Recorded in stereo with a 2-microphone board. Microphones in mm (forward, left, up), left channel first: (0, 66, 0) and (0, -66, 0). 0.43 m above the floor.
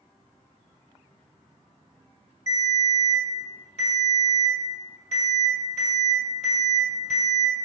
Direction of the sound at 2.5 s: 55° left (ahead or behind).